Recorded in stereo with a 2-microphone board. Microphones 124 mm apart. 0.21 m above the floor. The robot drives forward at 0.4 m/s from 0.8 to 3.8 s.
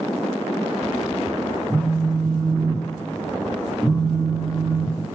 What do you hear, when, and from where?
1.7 s a phone buzzing: 25° right (ahead or behind), 0.6 m; by 5.2 s 10° right (ahead or behind), 1.3 m